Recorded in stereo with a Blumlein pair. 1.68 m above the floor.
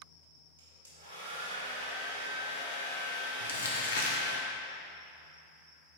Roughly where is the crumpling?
Ahead left.